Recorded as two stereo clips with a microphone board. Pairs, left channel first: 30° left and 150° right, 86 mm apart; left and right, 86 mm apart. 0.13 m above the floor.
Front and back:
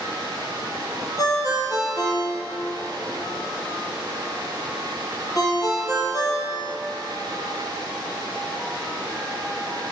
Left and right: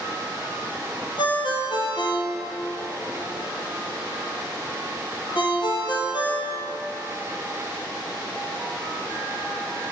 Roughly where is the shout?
No shout in this recording.